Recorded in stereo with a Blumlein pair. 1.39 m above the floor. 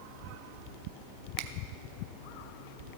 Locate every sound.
1.4 s a finger snap: 45° right, 0.5 m